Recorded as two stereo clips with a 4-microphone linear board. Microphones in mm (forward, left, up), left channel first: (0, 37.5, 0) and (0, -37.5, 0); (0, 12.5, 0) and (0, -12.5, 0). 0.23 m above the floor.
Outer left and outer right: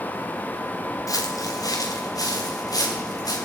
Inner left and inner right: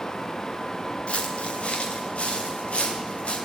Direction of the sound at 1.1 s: 55° left (ahead or behind).